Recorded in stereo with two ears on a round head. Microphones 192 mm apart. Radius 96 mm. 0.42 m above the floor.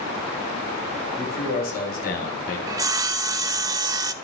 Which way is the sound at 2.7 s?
20° right (ahead or behind).